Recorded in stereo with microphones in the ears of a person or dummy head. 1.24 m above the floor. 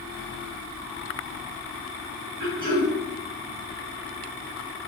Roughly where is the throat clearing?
Right.